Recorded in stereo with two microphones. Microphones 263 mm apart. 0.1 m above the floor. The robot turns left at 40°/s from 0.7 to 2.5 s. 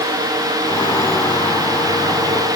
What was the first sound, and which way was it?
Only background noise.